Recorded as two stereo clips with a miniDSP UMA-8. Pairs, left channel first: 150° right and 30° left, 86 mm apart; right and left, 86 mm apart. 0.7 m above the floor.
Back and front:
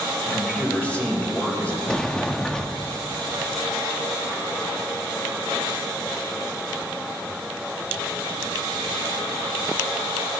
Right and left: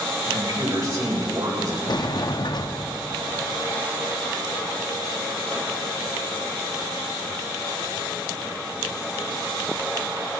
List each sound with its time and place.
0.3 s a man speaking: 140° left, 3 m
1.9 s a sliding door: 70° right, 0.6 m